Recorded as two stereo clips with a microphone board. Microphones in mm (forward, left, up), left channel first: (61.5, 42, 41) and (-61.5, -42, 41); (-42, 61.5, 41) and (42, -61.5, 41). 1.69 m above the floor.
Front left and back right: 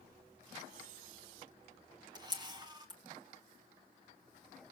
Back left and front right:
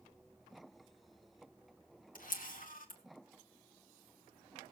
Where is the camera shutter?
150° left, 1.8 m.